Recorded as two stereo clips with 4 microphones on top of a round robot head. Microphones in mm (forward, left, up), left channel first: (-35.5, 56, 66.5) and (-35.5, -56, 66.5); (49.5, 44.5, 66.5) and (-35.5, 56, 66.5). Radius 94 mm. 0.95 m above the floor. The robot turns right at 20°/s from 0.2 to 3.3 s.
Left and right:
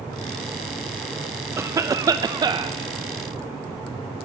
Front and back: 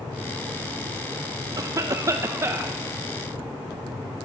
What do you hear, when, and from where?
1.6 s a cough: 150° right, 0.7 m; by 2.8 s 130° right, 0.7 m